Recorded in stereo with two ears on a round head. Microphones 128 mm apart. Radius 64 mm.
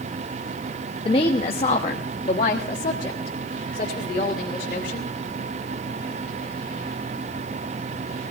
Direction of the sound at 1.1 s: 35° left (ahead or behind).